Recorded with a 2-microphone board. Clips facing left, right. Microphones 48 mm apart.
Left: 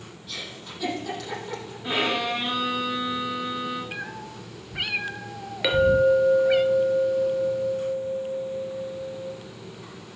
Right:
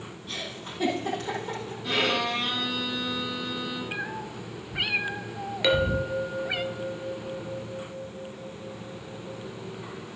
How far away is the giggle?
About 6.5 m.